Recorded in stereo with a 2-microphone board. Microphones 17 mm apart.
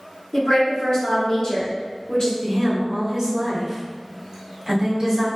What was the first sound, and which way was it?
A woman speaking, 45° left (ahead or behind).